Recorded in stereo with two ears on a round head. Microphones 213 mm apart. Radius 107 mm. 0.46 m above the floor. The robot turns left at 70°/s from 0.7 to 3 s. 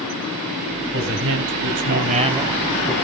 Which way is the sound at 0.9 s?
55° right.